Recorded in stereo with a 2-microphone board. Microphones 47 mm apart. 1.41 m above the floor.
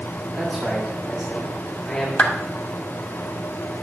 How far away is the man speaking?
About 2.5 m.